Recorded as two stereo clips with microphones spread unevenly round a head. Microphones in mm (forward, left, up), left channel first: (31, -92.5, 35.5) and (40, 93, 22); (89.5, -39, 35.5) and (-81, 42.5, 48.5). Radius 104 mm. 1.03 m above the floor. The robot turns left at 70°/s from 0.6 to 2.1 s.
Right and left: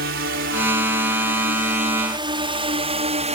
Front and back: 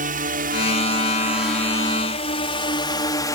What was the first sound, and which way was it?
A drone, 115° left.